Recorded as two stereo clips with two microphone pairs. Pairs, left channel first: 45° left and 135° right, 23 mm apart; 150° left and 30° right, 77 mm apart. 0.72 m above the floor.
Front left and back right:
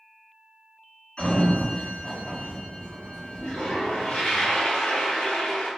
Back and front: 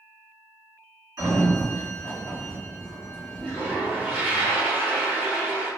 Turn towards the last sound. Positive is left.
turn(degrees=40)